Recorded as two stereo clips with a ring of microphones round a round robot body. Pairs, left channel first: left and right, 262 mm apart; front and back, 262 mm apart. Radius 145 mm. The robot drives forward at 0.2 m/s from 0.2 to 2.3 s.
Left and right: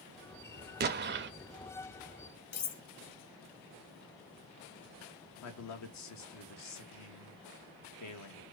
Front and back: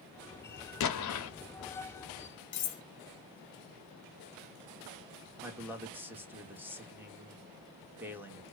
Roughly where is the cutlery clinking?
Ahead left.